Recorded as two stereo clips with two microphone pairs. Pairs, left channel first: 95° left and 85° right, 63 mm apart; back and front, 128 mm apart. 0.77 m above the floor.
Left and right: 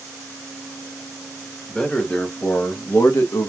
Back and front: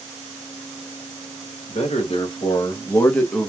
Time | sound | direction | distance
1.7 | a man speaking | 170° left | 1.1 m